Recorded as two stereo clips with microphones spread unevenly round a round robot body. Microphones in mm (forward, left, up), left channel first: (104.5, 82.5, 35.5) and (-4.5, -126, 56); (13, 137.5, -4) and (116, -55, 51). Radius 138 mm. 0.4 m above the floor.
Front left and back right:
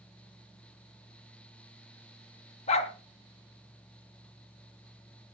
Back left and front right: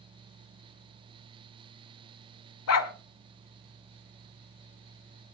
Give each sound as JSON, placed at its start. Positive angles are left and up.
{"t": 2.7, "sound": "a dog barking", "azimuth_deg": 130, "distance_m": 1.3}